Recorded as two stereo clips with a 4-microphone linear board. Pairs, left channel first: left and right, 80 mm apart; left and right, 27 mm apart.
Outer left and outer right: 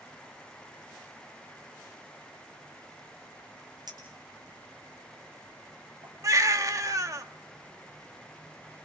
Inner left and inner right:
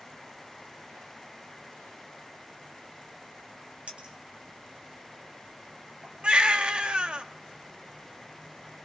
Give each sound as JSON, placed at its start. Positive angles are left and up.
{"t": 3.9, "sound": "a clink", "side_deg": -55, "distance_m": 9.0}
{"t": 6.2, "sound": "a baby crying", "side_deg": -45, "distance_m": 1.3}